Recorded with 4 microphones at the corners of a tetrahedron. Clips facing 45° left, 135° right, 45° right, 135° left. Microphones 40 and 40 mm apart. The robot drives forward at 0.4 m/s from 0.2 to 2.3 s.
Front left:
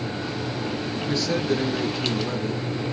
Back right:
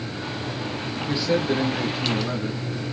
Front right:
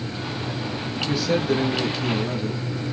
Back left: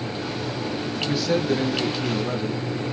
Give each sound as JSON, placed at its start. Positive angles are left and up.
{"t": 1.0, "sound": "a man speaking", "azimuth_deg": -140, "distance_m": 1.4}